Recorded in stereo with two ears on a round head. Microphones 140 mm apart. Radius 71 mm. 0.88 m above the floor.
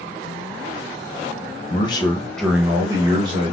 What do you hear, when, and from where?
1.7 s a man speaking: 35° left (ahead or behind), 0.6 m; by 3.5 s 35° right (ahead or behind), 1.0 m